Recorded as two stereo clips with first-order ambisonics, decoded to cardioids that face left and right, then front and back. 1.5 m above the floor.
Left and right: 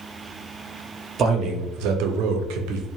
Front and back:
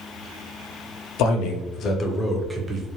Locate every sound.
1.2 s a man speaking: 30° right, 0.7 m; by 2.9 s 115° right, 0.6 m